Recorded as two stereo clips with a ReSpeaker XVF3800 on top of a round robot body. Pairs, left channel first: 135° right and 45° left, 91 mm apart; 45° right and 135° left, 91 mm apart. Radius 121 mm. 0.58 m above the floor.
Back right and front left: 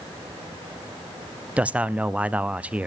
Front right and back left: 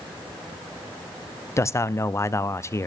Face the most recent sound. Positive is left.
turn(degrees=-20)